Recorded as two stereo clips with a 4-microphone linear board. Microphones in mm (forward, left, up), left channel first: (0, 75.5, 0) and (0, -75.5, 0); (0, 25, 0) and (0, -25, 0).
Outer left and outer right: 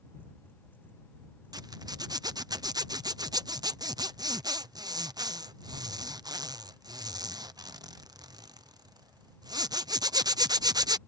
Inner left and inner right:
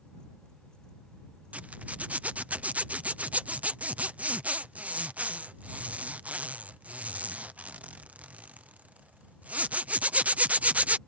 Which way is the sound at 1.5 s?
25° right (ahead or behind).